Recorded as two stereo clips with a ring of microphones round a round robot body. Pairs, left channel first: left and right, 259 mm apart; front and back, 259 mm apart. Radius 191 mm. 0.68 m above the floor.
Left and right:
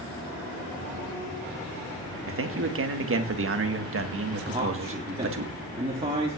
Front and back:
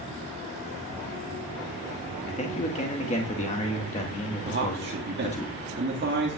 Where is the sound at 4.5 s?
155° right, 1.5 m.